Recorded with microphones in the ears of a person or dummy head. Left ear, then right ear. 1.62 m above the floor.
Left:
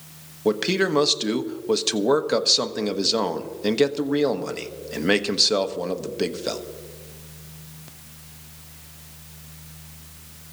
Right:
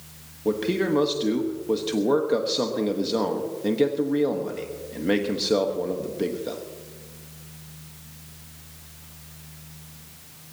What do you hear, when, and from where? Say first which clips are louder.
0.5 s a man speaking: left 3 dB; 45° left (ahead or behind), 1.2 m